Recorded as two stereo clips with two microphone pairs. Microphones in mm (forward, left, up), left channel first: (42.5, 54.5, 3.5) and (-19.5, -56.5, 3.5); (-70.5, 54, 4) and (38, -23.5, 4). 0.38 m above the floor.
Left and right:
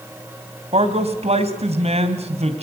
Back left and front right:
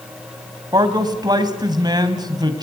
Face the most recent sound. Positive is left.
turn(degrees=-90)